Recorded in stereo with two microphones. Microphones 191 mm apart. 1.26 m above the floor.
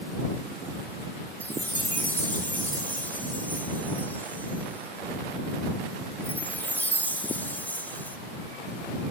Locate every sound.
1.4 s a chime: 10° left (ahead or behind)